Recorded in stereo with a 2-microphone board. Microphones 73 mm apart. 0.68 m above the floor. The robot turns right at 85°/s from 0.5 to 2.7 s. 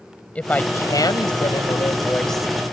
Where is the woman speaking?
20° left; by 2.5 s 170° right.